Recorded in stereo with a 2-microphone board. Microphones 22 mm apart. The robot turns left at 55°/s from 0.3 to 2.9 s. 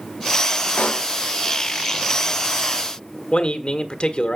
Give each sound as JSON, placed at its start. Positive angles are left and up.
{"t": 0.8, "sound": "a pop", "side_deg": 70, "distance_m": 0.7}
{"t": 3.3, "sound": "a man speaking", "side_deg": 55, "distance_m": 1.5}